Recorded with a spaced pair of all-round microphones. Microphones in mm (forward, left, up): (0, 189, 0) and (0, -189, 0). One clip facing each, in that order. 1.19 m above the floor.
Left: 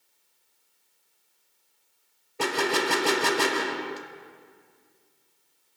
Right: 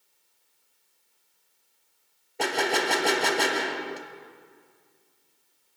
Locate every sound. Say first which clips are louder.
2.4 s a gunshot: left 1 dB; 15° left (ahead or behind), 0.9 m